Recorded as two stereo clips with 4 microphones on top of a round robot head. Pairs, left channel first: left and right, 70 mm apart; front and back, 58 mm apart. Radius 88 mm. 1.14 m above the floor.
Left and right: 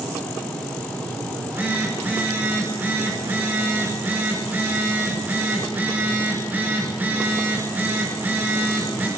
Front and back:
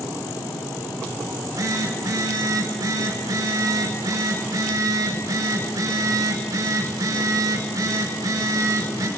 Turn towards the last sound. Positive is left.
turn(degrees=-155)